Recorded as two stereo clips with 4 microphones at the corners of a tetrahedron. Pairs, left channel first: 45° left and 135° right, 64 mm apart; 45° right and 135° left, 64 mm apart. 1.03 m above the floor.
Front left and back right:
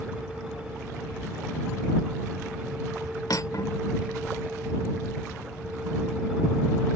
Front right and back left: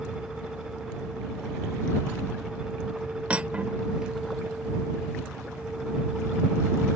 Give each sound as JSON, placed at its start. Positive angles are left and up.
{"t": 3.3, "sound": "cutlery clinking", "azimuth_deg": 65}